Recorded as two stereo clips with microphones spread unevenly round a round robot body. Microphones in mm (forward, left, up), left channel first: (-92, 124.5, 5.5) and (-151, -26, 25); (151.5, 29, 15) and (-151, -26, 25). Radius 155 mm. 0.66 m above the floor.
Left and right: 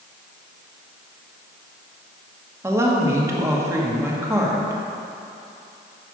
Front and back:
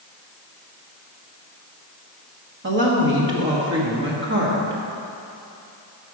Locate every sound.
2.6 s a woman speaking: 175° left, 1.3 m